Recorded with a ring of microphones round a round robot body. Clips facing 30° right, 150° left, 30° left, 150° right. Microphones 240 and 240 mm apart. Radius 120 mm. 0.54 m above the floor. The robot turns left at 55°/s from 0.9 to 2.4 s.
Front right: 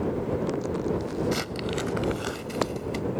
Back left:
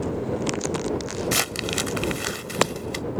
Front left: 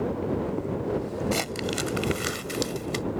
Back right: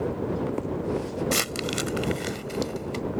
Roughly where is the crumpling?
Behind left.